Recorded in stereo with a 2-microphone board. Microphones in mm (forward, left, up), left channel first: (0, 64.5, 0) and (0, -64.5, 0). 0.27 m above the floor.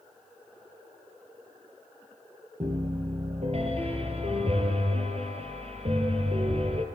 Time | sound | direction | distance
2.6 | a piano | 50° right (ahead or behind) | 4 m